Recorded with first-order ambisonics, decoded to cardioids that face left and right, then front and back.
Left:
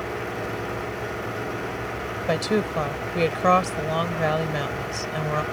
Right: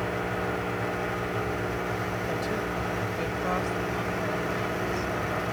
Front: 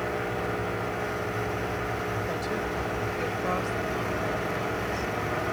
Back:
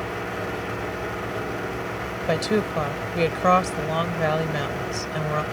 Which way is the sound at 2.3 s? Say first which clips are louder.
Left 6 dB, back 6 dB; 135° left.